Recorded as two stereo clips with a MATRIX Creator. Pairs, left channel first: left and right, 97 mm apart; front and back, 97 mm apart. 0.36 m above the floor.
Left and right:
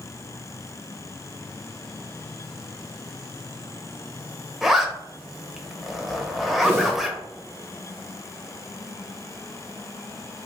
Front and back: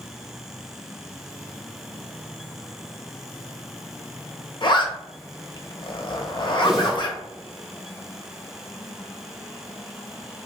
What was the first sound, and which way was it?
A zipper, 5° right.